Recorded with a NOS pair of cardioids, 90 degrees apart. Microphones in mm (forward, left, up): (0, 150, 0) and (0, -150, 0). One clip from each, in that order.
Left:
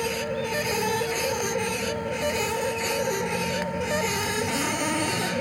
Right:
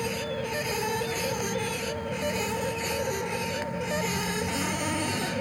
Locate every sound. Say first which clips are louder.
0.0 s a machine running: left 3 dB; 30° left